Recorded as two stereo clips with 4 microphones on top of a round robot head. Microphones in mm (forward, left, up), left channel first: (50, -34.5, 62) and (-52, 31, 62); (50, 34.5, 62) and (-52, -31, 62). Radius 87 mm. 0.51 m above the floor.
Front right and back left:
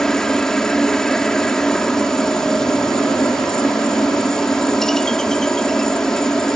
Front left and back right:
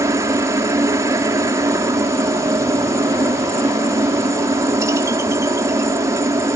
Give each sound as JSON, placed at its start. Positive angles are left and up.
{"t": 0.0, "sound": "a helicopter", "azimuth_deg": -115}